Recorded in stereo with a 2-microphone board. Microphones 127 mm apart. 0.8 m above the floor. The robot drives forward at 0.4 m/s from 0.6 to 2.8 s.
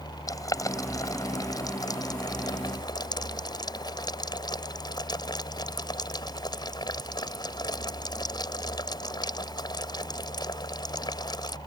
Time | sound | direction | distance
0.3 | boiling | 30° left (ahead or behind) | ?